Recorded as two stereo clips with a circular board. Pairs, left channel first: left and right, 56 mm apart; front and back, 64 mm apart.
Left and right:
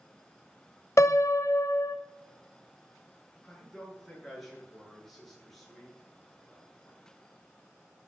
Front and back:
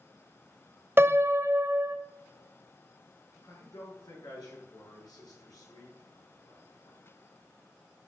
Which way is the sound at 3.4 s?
5° left.